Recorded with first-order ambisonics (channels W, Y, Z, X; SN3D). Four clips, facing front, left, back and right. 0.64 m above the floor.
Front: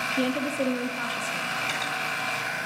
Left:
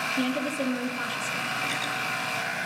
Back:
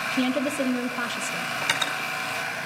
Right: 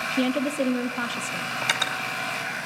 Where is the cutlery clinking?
115° right, 1.9 m.